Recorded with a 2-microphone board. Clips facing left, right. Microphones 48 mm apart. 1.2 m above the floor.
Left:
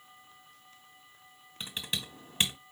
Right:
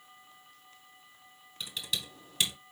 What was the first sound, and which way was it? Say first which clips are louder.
Typing on a keyboard: even; 30° left (ahead or behind).